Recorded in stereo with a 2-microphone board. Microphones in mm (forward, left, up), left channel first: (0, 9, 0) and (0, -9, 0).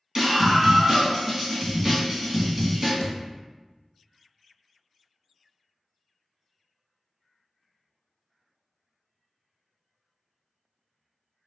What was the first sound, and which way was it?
A scream, 25° right (ahead or behind).